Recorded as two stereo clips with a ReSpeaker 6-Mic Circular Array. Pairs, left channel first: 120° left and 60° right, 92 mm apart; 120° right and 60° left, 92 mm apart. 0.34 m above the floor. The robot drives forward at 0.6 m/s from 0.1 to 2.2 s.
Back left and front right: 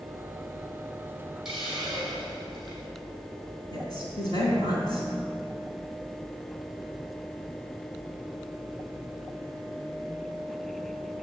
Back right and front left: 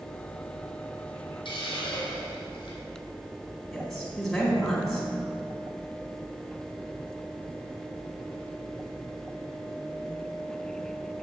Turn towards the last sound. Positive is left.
turn(degrees=155)